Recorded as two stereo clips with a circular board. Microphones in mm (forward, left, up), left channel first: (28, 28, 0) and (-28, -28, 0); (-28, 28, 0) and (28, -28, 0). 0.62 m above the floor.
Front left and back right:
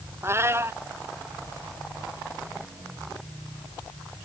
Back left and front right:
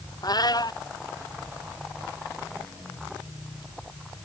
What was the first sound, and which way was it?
A cat meowing, 170° left.